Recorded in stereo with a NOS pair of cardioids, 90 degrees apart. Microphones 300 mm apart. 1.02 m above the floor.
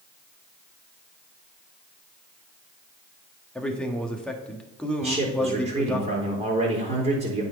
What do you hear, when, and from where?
3.5 s a man speaking: 5° left, 1.6 m
5.0 s a man speaking: 20° right, 4 m